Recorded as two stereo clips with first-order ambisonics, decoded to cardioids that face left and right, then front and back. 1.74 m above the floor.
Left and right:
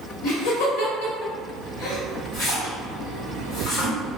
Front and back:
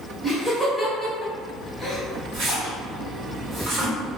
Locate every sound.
0.2 s laughter: 90° left, 1.3 m
2.3 s a splash: 135° left, 1.6 m